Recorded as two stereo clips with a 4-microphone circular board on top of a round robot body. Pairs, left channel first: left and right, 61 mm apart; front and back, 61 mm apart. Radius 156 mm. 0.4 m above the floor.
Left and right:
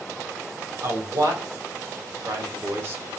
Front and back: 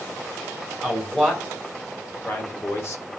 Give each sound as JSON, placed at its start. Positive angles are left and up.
{"t": 0.8, "sound": "a man speaking", "azimuth_deg": -85, "distance_m": 4.0}